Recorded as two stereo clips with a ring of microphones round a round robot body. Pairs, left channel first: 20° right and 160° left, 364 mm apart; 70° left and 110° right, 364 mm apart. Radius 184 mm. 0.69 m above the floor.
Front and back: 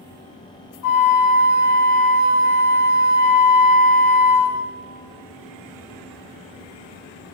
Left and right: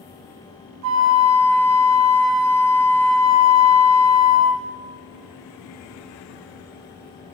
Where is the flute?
65° right, 0.9 m.